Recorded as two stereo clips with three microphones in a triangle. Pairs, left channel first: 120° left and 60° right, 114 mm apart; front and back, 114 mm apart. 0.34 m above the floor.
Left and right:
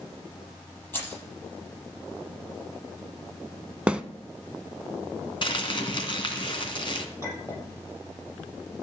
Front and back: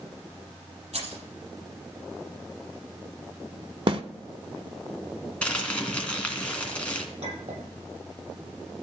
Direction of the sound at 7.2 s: 175° right.